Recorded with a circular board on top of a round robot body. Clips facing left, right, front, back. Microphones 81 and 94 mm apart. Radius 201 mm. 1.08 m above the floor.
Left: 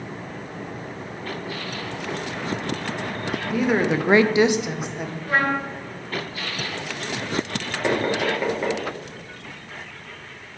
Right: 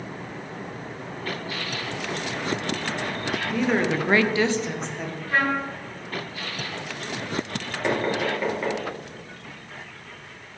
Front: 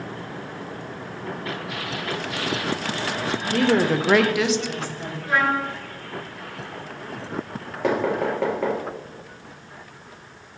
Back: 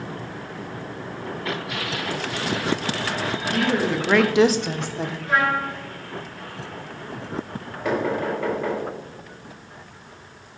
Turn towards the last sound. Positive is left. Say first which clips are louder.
# left 2 dB, front 1 dB
turn(degrees=10)